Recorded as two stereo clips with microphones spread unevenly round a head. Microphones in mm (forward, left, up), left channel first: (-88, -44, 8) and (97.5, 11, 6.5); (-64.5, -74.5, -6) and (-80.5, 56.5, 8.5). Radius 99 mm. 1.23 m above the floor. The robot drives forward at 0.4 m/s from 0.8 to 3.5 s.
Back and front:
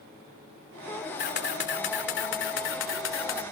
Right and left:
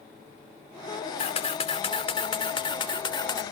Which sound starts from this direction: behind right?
A camera shutter, at 1.2 s.